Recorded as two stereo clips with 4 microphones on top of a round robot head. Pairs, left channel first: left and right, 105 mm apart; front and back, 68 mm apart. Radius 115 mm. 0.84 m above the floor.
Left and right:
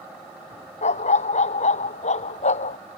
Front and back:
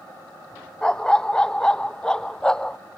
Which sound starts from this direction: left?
A dog barking, at 0.8 s.